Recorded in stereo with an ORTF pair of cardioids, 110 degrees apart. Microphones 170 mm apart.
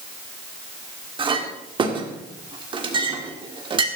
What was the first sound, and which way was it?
A clink, 30° right.